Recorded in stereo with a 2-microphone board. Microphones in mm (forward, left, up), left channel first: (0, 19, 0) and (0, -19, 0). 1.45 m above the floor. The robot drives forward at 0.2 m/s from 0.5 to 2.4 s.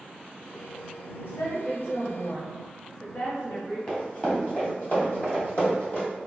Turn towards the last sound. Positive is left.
turn(degrees=35)  # may be behind; listen again after turning